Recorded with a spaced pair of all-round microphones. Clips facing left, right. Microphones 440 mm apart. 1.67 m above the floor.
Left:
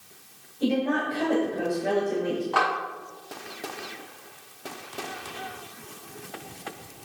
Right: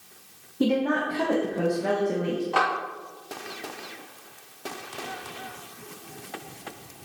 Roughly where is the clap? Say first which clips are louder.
Right 1 dB; right.